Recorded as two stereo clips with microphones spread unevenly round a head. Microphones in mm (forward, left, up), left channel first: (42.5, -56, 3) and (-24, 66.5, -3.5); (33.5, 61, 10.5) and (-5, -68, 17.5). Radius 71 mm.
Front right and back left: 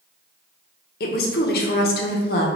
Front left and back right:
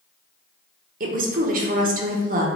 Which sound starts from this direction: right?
A woman speaking, at 1.0 s.